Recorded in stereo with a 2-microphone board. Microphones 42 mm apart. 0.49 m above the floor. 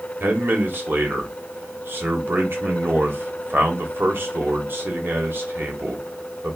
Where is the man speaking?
60° right (ahead or behind), 1.6 m.